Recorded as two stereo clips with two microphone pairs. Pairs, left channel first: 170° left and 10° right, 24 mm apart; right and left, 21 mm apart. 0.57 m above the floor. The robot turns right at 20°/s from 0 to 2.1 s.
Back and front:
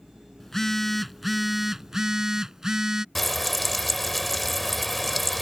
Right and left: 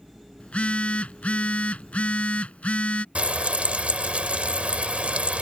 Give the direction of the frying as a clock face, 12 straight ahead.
9 o'clock.